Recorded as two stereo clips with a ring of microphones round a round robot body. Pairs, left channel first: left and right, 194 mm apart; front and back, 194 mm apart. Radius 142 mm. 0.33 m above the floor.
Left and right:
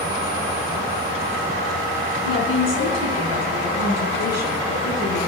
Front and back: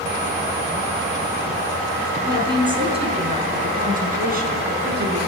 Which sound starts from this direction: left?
A woman speaking, at 2.2 s.